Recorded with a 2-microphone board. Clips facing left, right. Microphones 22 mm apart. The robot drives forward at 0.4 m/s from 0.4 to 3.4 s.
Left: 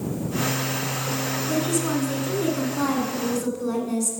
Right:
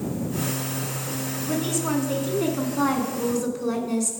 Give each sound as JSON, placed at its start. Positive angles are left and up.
{"t": 1.5, "sound": "a woman speaking", "side_deg": -10, "distance_m": 1.0}